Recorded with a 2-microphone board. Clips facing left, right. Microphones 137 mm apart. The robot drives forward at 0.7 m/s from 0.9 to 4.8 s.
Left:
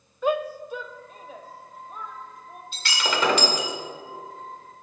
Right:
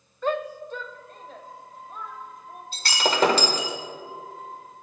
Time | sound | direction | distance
0.2 | a shout | 10° left (ahead or behind) | 0.5 m
2.7 | breaking glass | 40° right (ahead or behind) | 1.6 m